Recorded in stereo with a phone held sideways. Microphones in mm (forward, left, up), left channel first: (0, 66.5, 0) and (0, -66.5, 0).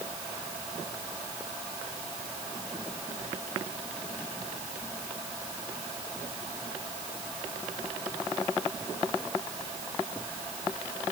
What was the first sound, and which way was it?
Only background noise.